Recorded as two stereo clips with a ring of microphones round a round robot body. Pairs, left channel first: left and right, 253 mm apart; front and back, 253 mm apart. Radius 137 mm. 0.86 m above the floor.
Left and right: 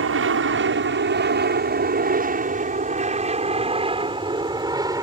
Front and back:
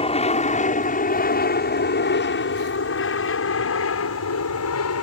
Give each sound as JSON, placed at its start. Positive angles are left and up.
{"t": 0.0, "sound": "an aircraft", "azimuth_deg": -65}